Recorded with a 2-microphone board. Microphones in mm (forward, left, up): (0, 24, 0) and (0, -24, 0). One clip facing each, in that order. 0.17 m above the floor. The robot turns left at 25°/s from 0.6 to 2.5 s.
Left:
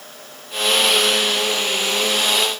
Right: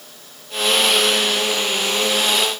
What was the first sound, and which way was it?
Only background noise.